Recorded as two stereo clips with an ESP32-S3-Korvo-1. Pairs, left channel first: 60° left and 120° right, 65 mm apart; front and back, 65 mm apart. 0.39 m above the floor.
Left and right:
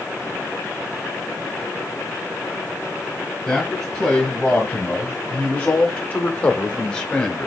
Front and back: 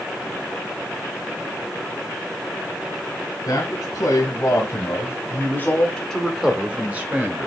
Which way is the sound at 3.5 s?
20° right.